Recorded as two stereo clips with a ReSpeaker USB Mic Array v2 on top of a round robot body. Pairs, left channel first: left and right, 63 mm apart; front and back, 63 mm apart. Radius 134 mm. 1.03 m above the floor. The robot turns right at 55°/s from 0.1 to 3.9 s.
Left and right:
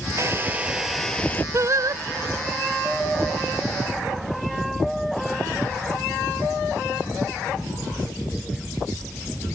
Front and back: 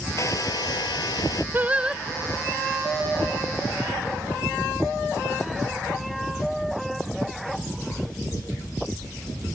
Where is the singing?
125° right; by 2.0 s 100° right.